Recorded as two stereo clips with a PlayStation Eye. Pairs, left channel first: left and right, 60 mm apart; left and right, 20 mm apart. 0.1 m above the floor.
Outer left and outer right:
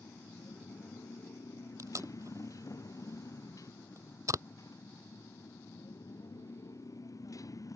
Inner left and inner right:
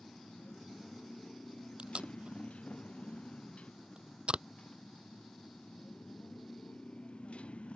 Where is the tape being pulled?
60° right (ahead or behind).